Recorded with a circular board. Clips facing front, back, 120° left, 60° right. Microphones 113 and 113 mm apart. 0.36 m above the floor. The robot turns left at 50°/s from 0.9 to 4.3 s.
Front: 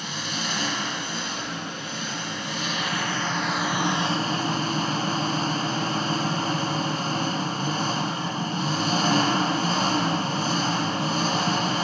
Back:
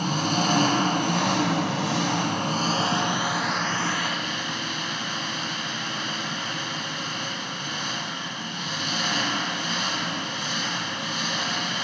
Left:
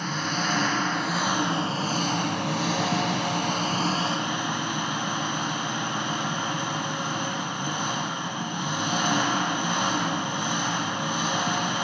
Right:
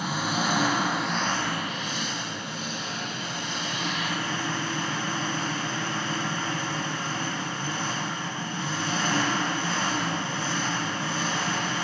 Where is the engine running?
140° right, 0.9 m; by 11.8 s 50° left, 0.9 m.